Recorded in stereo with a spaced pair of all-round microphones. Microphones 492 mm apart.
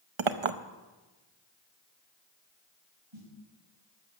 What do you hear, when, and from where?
0.2 s a clink: 70° right (ahead or behind), 0.8 m
3.1 s a snare drum: 70° right (ahead or behind), 7 m